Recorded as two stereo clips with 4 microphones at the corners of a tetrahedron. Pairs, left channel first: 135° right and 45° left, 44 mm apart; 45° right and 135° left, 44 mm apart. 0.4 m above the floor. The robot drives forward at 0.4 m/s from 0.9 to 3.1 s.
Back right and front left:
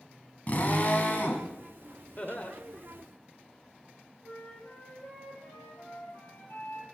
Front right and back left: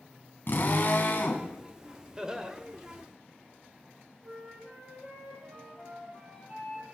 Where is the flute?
160° right, 4.5 m.